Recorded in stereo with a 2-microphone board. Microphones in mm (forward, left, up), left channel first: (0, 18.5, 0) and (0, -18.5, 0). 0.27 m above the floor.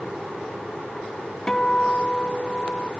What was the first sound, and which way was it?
A guitar, 15° left (ahead or behind).